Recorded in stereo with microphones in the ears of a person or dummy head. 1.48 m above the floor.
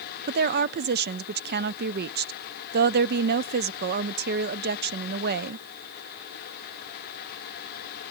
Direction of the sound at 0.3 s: 55° right (ahead or behind).